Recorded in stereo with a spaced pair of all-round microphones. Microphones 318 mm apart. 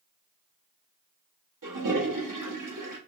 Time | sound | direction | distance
1.6 | a toilet flushing | 75° right (ahead or behind) | 1.0 m